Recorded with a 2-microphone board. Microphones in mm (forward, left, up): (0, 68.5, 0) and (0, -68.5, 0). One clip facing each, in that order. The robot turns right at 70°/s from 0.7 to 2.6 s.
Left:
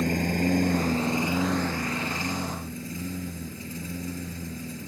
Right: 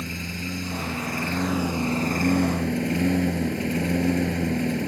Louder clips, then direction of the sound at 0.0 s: Left 8 dB; 125° left.